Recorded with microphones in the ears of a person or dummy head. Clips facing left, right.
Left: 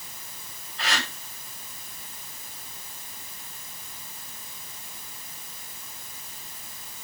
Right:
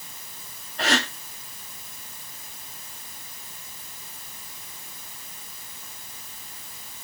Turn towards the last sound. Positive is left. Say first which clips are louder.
# right 7 dB
turn(degrees=-35)  # may be behind; listen again after turning